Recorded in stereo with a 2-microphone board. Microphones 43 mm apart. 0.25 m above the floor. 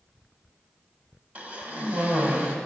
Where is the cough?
30° right (ahead or behind), 1.3 m.